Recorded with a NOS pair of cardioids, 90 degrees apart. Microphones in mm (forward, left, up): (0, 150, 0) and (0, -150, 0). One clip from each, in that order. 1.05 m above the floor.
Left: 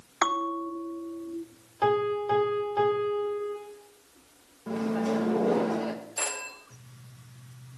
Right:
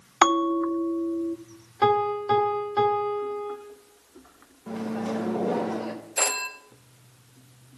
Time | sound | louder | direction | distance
0.2 | a bell | right 6 dB | 30° right | 0.5 m
1.8 | a piano | right 3 dB | 35° right | 3 m
4.7 | a microwave | left 2 dB | 5° left | 1.0 m
6.2 | a phone ringing | right 8 dB | 40° right | 0.9 m